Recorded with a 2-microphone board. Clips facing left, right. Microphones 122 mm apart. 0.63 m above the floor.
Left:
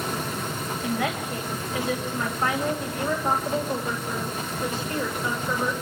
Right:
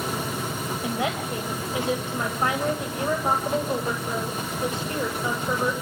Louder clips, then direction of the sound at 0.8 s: Even; 25° right (ahead or behind).